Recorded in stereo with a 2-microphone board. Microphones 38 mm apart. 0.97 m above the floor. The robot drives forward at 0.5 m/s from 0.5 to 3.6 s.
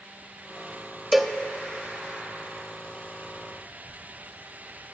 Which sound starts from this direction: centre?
A cowbell, at 1.1 s.